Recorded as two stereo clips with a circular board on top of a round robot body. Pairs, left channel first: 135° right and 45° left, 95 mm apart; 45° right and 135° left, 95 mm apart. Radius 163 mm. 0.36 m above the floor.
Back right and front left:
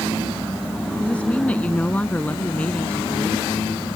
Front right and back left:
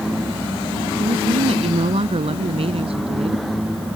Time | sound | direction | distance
1.0 | a woman speaking | 150° left | ?